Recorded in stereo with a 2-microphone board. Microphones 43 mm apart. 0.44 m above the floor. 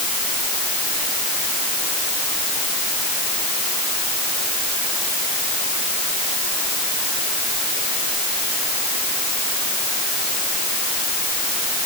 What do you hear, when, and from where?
Only background noise.